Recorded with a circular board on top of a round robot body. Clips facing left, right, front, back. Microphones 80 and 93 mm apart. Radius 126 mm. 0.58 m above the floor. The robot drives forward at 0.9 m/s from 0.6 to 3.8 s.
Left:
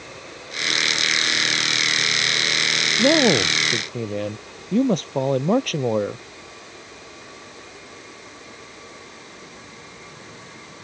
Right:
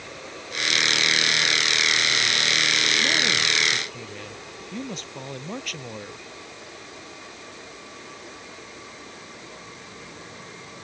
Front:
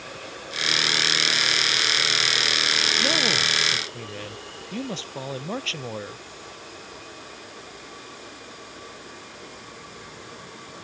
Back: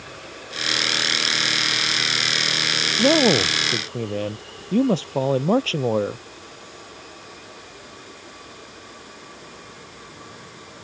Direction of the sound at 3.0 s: 130° left.